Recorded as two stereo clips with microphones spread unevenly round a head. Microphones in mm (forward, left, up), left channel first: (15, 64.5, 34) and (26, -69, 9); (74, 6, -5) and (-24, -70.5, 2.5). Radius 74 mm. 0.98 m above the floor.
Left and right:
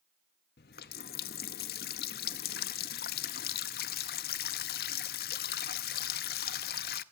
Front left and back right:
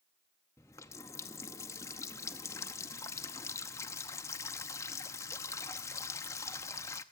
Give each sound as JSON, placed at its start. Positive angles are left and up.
{"t": 0.6, "sound": "a running tap", "azimuth_deg": 110, "distance_m": 0.5}